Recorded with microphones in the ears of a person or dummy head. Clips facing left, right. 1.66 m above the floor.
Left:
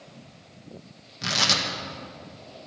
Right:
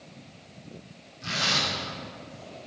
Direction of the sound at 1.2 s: 80° left.